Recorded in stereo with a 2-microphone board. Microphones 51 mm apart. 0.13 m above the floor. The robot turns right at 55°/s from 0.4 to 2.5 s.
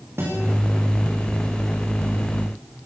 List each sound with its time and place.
0.2 s a guitar: 55° right (ahead or behind), 9.5 m; by 0.5 s 50° right (ahead or behind), 9.5 m